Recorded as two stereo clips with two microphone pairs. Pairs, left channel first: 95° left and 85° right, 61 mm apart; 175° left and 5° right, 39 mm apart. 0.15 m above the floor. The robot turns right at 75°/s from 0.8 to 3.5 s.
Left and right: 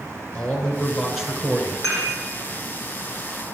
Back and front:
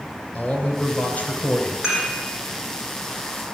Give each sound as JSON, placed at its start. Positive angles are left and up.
{"t": 0.3, "sound": "a man speaking", "azimuth_deg": 165, "distance_m": 2.0}
{"t": 1.8, "sound": "dishes clattering", "azimuth_deg": -80, "distance_m": 4.5}